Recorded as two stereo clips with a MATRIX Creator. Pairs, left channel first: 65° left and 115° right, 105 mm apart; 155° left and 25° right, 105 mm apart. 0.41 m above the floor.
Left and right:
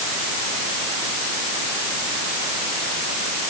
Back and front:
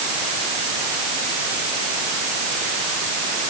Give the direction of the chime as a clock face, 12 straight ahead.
No chime in this recording.